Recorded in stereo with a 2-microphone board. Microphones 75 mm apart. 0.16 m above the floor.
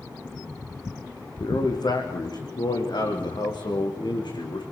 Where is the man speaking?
65° left (ahead or behind), 6.5 m; by 4.6 s 85° left, 10 m.